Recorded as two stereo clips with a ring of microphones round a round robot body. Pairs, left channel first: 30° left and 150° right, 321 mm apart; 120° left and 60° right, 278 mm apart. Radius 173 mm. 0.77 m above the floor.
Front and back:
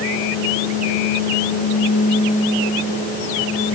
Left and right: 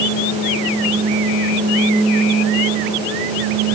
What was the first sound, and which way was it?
Only background noise.